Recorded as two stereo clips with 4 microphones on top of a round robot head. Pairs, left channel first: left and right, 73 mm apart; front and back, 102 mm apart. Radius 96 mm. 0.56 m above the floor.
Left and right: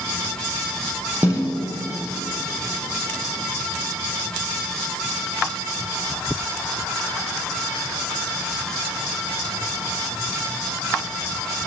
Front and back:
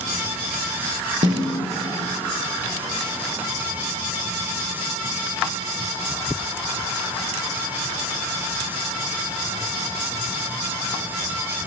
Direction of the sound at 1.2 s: 155° right.